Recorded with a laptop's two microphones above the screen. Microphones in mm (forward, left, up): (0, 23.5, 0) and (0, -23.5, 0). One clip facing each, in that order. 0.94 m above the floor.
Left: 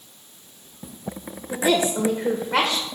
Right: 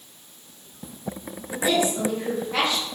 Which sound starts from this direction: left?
A woman speaking, at 1.5 s.